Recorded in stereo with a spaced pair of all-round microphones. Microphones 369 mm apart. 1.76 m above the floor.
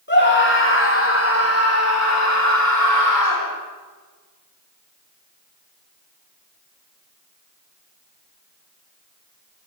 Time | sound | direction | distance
0.1 | a scream | 30° left (ahead or behind) | 3.5 m